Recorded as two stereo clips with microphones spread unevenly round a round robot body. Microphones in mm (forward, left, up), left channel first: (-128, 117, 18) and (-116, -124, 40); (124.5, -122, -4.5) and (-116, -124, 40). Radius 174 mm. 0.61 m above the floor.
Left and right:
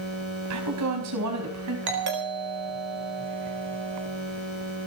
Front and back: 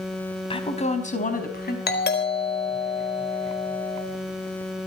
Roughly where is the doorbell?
Ahead right.